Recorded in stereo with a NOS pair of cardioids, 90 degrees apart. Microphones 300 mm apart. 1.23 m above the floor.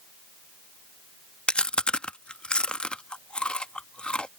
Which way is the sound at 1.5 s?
5° left.